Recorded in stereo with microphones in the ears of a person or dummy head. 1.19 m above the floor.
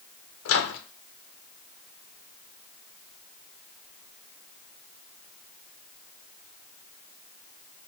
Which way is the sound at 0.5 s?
75° left (ahead or behind).